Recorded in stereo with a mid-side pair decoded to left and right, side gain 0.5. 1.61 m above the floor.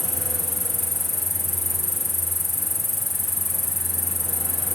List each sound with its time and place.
0.0 s an insect: 10° left